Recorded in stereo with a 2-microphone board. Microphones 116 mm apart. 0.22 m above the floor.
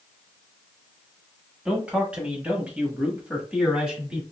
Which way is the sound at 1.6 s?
10° right (ahead or behind).